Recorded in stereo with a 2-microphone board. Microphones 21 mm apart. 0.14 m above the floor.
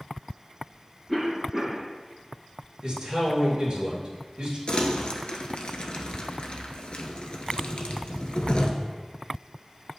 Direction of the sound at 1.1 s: 15° right (ahead or behind).